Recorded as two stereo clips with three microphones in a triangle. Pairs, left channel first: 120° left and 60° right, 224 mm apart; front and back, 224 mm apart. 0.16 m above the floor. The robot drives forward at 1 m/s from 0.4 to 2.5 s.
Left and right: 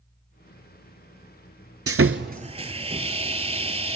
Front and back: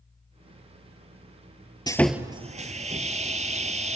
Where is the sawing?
70° right, 0.7 m; by 4.0 s 125° right, 0.7 m.